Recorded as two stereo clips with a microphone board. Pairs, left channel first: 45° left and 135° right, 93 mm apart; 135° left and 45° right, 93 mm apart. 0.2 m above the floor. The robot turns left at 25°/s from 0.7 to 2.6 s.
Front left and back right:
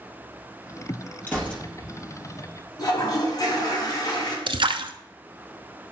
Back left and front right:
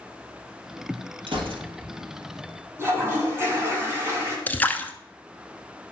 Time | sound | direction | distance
1.3 | a gunshot | 25° right | 2 m
2.8 | a toilet flushing | 10° left | 2.5 m
4.5 | a splash | 155° right | 0.6 m